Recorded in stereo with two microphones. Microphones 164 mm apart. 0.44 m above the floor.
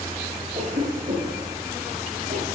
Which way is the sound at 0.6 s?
40° right (ahead or behind).